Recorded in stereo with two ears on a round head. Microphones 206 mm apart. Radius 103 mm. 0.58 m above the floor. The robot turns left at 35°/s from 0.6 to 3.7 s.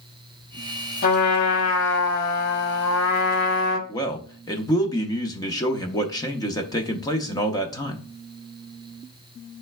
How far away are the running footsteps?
No running footsteps in this recording.